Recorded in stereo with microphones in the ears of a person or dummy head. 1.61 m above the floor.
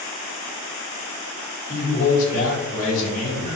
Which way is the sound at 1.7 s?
45° left (ahead or behind).